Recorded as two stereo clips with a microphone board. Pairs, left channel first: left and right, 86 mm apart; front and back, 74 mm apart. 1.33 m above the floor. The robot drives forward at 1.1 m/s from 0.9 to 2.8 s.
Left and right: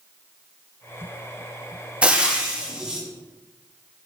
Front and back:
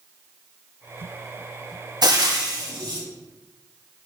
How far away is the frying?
About 1.6 m.